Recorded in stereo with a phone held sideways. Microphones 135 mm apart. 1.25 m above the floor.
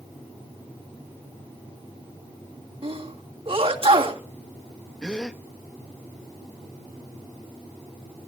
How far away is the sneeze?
About 3 m.